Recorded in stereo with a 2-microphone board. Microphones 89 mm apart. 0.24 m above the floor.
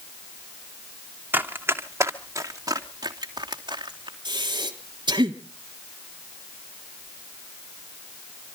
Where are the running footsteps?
20° right (ahead or behind), 2 m; by 4.2 s 60° right (ahead or behind), 2.5 m.